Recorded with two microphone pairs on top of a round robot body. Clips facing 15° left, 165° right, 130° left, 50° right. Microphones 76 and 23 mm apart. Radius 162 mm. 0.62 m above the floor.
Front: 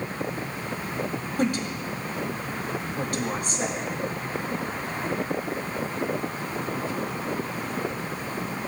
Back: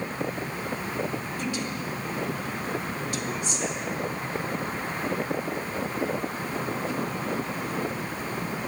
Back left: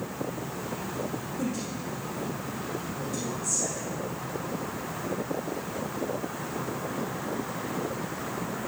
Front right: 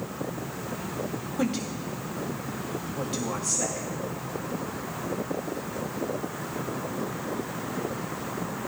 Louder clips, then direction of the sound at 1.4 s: Front 4 dB, front right 5 dB; 30° right.